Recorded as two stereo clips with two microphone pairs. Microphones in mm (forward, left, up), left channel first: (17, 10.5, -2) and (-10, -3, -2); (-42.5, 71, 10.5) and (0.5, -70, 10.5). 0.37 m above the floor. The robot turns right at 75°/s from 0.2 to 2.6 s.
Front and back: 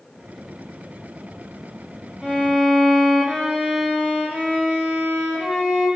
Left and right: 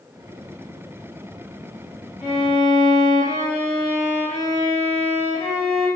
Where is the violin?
135° left, 1.9 m; by 5.9 s 165° left, 1.9 m.